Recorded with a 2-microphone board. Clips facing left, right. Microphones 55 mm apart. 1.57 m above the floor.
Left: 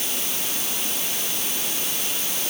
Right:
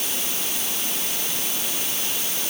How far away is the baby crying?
No baby crying in this recording.